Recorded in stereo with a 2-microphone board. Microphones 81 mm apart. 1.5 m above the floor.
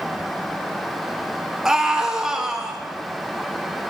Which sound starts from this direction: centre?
A scream, at 1.6 s.